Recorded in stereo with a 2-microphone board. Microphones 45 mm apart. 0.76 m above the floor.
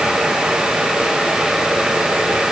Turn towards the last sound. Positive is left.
No sound to turn to.